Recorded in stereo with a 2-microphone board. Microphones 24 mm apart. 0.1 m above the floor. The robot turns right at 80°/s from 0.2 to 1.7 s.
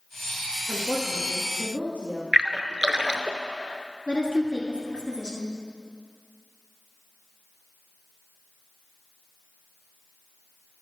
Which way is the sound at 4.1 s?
30° left (ahead or behind).